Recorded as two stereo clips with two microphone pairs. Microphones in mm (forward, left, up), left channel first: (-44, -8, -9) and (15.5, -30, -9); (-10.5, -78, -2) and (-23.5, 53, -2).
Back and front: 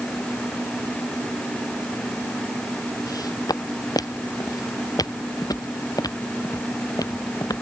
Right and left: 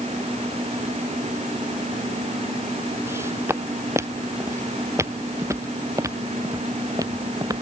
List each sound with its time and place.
3.1 s footsteps: 165° left; by 7.6 s 155° left